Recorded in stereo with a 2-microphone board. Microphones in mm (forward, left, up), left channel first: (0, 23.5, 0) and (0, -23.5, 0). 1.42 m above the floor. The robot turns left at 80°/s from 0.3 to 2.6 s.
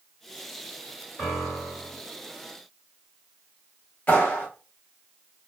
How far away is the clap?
About 1.3 m.